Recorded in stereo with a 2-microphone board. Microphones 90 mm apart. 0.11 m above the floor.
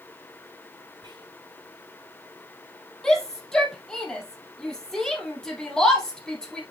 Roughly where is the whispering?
Right.